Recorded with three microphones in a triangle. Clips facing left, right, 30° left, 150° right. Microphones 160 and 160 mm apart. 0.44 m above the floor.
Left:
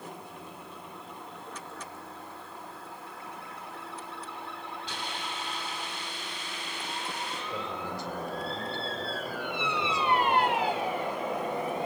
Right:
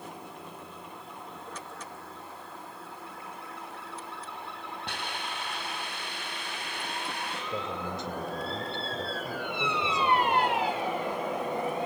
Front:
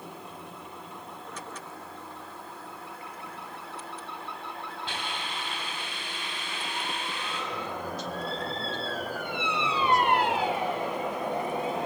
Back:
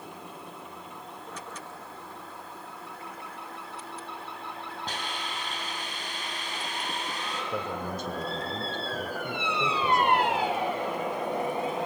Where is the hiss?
105° right, 3.5 m.